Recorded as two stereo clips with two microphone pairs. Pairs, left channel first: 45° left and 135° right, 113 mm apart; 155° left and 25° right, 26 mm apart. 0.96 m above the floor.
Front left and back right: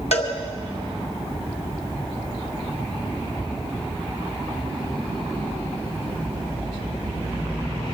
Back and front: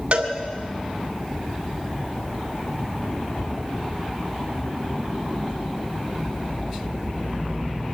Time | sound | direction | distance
0.1 | a cowbell | 25° left | 2.5 m